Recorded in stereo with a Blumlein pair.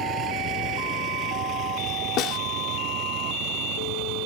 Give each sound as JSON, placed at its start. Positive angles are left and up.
{"t": 0.0, "sound": "a vehicle", "azimuth_deg": -30}
{"t": 2.2, "sound": "a snare drum", "azimuth_deg": 35}